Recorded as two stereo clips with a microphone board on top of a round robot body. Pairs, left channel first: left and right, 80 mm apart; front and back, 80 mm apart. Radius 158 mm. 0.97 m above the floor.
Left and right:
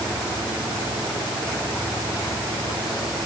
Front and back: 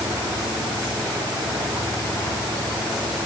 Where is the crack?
I don't hear a crack.